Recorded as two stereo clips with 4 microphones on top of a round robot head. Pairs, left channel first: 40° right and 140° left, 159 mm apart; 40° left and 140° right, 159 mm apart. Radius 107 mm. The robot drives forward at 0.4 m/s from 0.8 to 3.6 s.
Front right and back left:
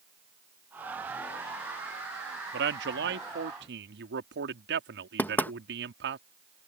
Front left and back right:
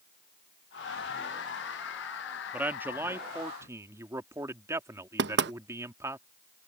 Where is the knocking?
120° right.